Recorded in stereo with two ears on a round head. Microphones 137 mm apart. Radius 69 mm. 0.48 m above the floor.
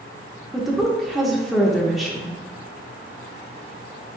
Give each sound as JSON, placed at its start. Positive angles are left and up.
{"t": 0.5, "sound": "a woman speaking", "side_deg": 0, "distance_m": 0.8}